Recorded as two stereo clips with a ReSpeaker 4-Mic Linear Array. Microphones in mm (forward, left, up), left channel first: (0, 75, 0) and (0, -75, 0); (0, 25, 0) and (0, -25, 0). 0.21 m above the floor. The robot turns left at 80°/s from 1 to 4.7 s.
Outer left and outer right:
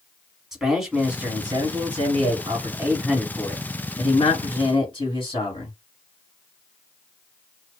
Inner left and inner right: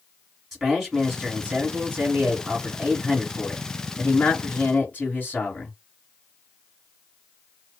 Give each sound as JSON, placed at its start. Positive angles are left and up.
{"t": 0.5, "sound": "a man speaking", "azimuth_deg": -5, "distance_m": 1.6}